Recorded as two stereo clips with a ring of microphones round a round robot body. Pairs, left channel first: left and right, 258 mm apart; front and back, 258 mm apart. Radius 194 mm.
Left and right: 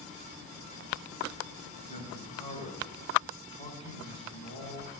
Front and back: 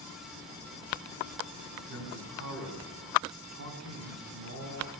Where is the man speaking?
165° left, 4.5 m.